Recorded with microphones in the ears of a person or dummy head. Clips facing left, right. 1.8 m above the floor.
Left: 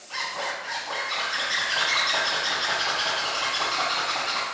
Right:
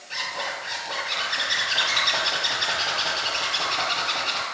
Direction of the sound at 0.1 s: 25° right (ahead or behind).